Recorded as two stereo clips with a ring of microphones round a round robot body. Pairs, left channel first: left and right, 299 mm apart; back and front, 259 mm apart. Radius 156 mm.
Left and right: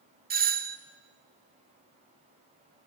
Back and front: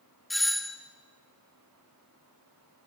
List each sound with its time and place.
0.3 s a doorbell: 90° right, 1.4 m